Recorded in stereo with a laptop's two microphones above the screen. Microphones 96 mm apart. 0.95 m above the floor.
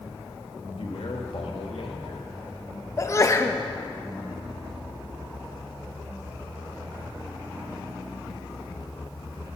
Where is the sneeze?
30° left (ahead or behind), 0.8 m.